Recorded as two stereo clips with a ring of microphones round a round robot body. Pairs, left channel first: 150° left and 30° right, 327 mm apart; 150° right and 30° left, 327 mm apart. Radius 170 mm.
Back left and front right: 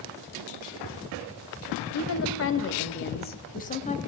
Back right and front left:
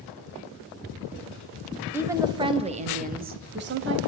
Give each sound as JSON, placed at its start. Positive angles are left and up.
{"t": 1.9, "sound": "a woman speaking", "azimuth_deg": 115, "distance_m": 2.0}